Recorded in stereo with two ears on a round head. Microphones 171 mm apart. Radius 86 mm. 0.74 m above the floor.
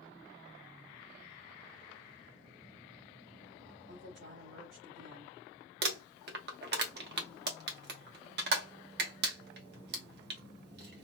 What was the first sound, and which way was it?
A woman speaking, 65° right (ahead or behind).